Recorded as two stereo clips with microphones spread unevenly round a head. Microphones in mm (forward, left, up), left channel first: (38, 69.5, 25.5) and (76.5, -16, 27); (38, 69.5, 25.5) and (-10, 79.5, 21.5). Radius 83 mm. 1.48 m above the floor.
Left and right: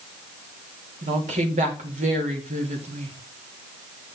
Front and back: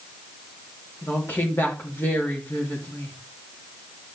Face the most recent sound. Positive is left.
turn(degrees=-85)